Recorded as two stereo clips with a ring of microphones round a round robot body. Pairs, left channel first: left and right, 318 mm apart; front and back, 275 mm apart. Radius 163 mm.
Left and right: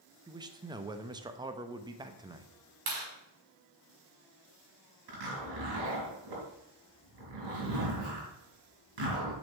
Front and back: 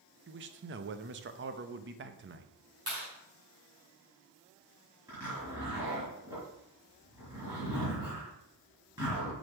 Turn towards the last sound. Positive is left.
turn(degrees=-100)